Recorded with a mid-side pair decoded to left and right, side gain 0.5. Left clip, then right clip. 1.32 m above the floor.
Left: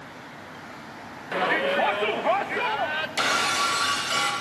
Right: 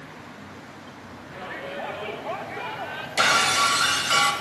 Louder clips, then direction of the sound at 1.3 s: Left 11 dB; 70° left.